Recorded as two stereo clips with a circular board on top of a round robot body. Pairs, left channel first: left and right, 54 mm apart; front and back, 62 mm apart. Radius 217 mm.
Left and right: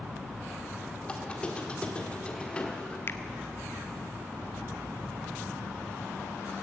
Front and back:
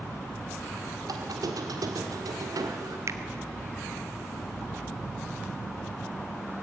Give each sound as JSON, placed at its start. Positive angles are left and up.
{"t": 1.1, "sound": "a squeak", "azimuth_deg": 160, "distance_m": 1.6}
{"t": 3.1, "sound": "a finger snap", "azimuth_deg": 140, "distance_m": 0.8}